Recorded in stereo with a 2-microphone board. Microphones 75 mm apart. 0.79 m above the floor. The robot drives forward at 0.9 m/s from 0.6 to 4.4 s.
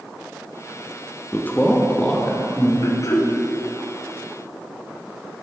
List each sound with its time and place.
1.3 s a man speaking: 25° left (ahead or behind), 0.7 m; by 2.7 s 10° left (ahead or behind), 1.8 m
2.8 s throat clearing: 55° left (ahead or behind), 1.0 m; by 3.3 s 45° left (ahead or behind), 1.2 m